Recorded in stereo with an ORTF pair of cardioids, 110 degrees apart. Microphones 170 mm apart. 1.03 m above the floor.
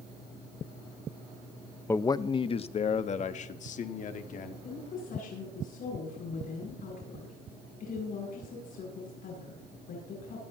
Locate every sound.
1.9 s a man speaking: 15° left, 0.6 m; by 4.5 s 55° left, 2 m
4.6 s a woman speaking: 60° left, 9 m